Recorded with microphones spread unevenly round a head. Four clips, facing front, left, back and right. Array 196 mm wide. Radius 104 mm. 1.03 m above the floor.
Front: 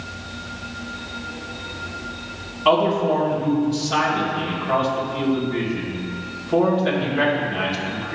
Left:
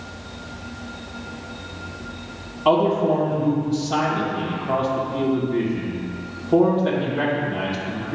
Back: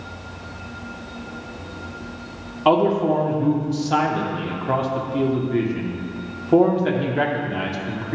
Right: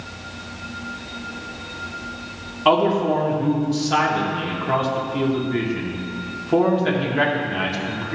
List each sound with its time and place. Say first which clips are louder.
2.6 s a man speaking: even, back 1 dB; 170° left, 1.0 m